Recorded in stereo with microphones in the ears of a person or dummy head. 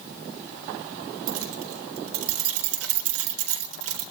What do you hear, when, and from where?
1.3 s keys jangling: 85° right, 3.5 m